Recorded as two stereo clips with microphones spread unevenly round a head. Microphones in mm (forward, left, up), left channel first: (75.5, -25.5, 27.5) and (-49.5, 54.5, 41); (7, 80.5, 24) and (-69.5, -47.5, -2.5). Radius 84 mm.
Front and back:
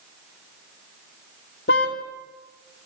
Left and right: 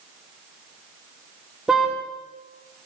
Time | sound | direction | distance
1.7 | a car horn | 25° right | 2.5 m